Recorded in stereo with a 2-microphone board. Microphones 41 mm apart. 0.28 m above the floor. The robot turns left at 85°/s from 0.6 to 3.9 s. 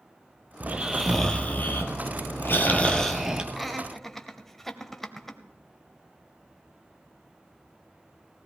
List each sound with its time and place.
0.6 s snoring: 140° right, 1.3 m; by 3.4 s 20° right, 1.3 m
3.5 s laughter: 5° right (ahead or behind), 0.9 m; by 5.4 s 5° left (ahead or behind), 0.9 m